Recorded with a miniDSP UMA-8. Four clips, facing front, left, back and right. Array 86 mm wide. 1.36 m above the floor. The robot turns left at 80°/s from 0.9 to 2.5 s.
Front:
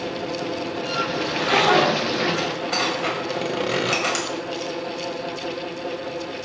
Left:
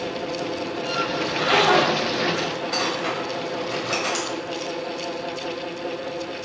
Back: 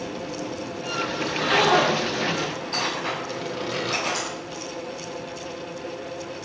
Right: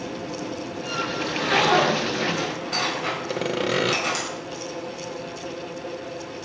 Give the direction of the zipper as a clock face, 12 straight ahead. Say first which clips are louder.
Left 2 dB, front 1 dB; 9 o'clock.